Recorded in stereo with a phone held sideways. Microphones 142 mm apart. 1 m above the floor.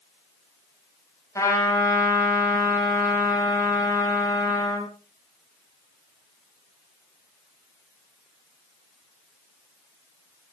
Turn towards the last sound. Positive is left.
turn(degrees=20)  # may be behind; listen again after turning